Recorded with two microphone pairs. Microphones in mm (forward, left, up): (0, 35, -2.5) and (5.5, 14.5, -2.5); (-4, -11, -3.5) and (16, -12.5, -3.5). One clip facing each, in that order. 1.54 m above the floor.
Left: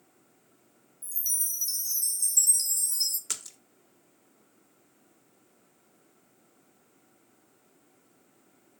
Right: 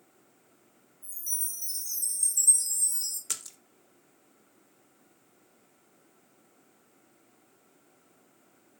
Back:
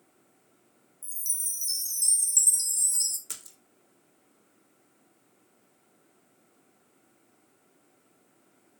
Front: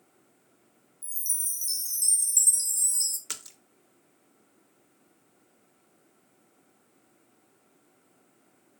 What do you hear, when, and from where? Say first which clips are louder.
1.0 s a chime: left 4 dB, front 1 dB; 90° left, 1.4 m
3.3 s a splash: even, front 4 dB; 25° left, 0.8 m